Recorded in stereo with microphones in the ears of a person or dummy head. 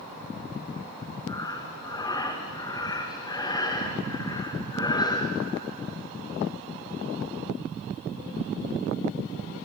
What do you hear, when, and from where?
1.3 s breathing: 25° left (ahead or behind), 1.6 m